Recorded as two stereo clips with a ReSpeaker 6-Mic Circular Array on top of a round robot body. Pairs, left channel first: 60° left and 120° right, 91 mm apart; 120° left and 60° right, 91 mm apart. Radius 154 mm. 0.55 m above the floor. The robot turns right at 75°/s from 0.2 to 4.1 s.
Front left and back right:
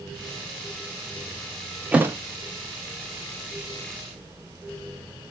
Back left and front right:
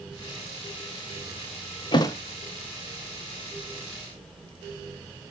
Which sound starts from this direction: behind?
A thud, at 1.9 s.